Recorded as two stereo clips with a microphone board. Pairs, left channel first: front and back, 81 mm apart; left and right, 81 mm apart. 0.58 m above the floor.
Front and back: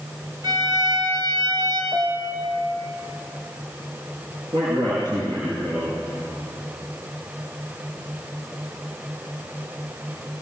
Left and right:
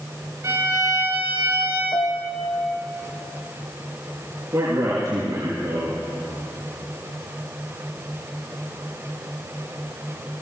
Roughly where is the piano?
Behind left.